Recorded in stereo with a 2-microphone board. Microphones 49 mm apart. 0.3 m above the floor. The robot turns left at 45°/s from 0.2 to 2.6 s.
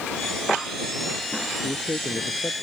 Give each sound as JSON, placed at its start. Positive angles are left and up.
{"t": 1.6, "sound": "a man speaking", "azimuth_deg": 95}